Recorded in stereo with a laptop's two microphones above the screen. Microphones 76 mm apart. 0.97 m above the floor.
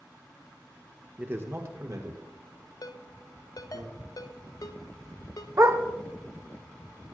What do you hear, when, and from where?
1.2 s a man speaking: 25° right (ahead or behind), 1.0 m; by 3.8 s 70° right (ahead or behind), 3 m
2.8 s a ringtone: 55° left (ahead or behind), 0.6 m
5.6 s a dog barking: 45° right (ahead or behind), 0.8 m